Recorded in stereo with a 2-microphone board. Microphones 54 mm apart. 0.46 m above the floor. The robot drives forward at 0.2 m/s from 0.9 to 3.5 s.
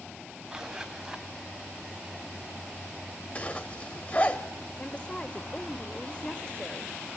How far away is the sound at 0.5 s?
About 1.7 m.